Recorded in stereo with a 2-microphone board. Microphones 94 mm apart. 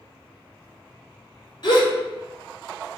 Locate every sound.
1.6 s a gasp: 50° left (ahead or behind), 0.8 m